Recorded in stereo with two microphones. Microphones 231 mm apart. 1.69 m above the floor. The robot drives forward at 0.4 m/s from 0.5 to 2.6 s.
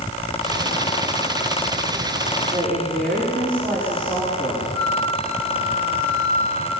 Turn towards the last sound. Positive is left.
turn(degrees=50)  # may be behind; listen again after turning